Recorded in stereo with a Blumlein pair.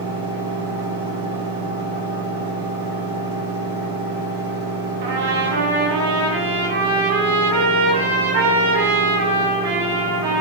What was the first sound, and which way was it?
A fan, 55° right.